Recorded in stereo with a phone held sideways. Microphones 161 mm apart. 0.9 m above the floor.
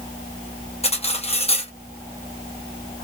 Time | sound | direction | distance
0.8 | cutlery clinking | 40° left (ahead or behind) | 0.7 m